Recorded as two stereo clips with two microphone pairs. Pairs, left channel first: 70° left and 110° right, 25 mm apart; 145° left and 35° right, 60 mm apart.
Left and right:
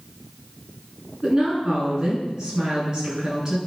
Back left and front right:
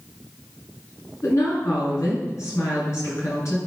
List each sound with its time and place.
1.2 s a woman speaking: 175° right, 8 m